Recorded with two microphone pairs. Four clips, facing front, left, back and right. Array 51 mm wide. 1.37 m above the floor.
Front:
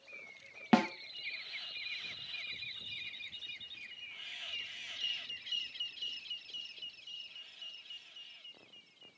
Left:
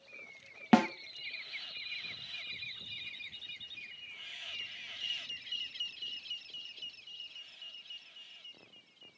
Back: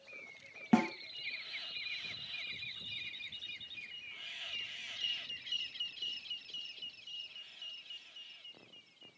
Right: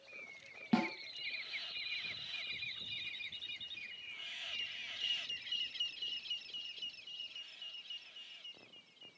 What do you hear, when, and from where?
0.7 s a snare drum: 55° left, 1.0 m